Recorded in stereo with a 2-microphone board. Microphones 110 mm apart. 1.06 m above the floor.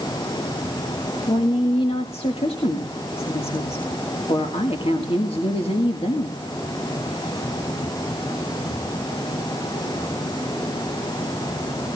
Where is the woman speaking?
60° left (ahead or behind), 2.0 m.